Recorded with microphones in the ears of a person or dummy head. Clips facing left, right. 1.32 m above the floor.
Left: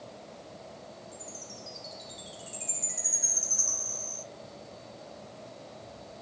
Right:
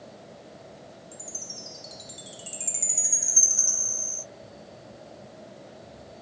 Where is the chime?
35° right (ahead or behind), 2 m.